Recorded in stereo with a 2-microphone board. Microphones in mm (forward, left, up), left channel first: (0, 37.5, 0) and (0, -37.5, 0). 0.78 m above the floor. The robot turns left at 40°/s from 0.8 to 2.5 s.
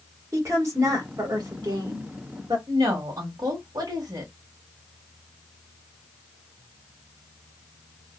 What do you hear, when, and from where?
0.3 s a woman speaking: 40° right, 1.4 m; by 2.6 s 110° right, 1.4 m
2.7 s a woman speaking: 60° right (ahead or behind), 1.5 m